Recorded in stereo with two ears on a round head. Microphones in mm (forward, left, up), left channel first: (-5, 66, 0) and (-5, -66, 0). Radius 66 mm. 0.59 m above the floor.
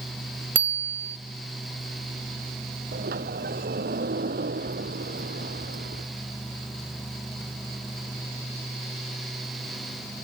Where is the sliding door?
70° right (ahead or behind).